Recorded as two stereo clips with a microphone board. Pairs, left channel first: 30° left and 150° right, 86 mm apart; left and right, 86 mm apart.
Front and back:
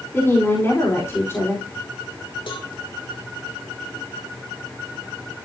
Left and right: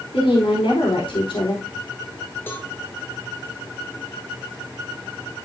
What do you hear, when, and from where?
0.1 s a woman speaking: 90° left, 4 m
2.5 s a cowbell: 25° left, 3 m